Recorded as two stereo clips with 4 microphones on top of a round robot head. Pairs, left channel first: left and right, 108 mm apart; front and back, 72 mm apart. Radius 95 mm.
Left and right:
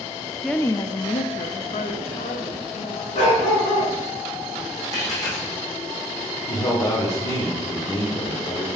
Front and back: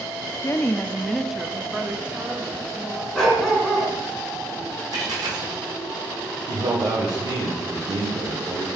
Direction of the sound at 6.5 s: 145° left.